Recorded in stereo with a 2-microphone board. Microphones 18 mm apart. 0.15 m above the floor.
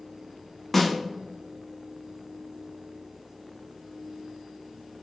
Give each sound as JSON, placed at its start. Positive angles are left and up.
{"t": 0.7, "sound": "a snare drum", "side_deg": 5, "distance_m": 0.8}